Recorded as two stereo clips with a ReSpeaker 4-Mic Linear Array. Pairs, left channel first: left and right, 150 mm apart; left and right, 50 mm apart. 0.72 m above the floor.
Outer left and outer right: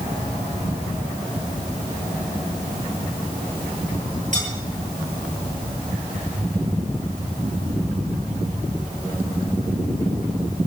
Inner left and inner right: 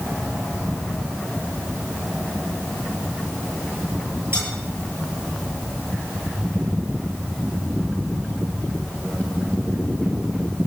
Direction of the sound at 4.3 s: 50° right (ahead or behind).